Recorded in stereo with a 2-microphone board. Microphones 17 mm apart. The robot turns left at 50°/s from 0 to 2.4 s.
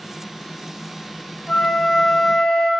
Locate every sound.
1.5 s a flute: 110° left, 0.8 m; by 2.7 s 65° left, 0.8 m